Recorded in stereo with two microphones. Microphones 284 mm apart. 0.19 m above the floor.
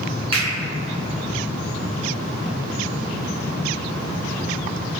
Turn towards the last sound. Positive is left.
turn(degrees=-20)  # may be behind; listen again after turning